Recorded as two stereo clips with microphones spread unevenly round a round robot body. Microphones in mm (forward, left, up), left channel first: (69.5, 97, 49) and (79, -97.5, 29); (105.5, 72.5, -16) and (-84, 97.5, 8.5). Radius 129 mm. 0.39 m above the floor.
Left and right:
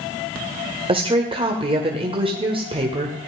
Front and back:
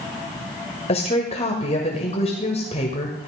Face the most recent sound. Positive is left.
turn(degrees=-45)